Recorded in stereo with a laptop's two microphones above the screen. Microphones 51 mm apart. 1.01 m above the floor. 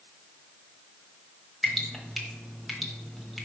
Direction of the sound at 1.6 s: 5° left (ahead or behind).